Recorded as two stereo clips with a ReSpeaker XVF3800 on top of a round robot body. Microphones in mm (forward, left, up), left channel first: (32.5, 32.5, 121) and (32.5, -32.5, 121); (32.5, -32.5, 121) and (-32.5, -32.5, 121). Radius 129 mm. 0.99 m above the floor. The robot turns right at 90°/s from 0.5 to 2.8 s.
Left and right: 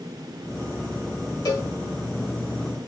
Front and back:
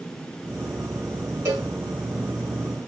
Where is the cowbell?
125° left, 2 m; by 1.7 s 145° left, 2 m.